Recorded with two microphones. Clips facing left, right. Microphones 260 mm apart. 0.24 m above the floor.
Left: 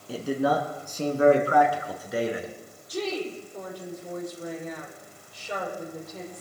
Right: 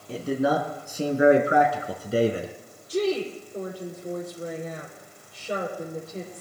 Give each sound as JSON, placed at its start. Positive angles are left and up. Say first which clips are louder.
{"t": 0.1, "sound": "a man speaking", "louder": "right 1 dB", "side_deg": 5, "distance_m": 2.5}
{"t": 2.9, "sound": "a woman speaking", "louder": "right 5 dB", "side_deg": -30, "distance_m": 6.5}